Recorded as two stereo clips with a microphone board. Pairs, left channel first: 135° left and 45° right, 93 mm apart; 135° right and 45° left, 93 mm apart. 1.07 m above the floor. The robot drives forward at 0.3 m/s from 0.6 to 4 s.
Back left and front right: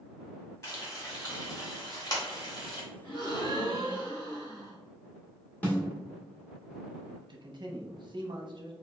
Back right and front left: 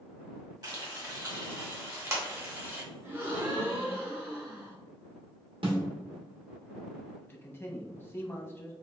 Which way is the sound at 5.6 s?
65° left.